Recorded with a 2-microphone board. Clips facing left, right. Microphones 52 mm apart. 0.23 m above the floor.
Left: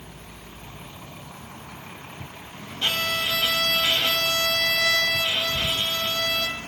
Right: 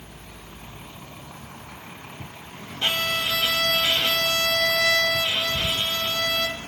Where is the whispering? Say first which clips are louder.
Even; 60° left (ahead or behind), 2.5 m.